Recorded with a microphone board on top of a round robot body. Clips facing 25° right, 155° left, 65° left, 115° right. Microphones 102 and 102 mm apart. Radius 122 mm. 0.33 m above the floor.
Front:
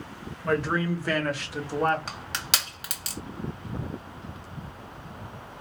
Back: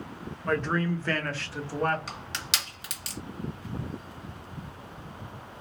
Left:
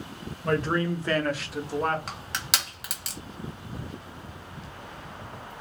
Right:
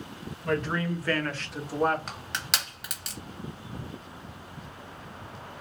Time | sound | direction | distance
0.4 | a man speaking | 60° left | 1.2 m
2.1 | crushing | 20° right | 1.9 m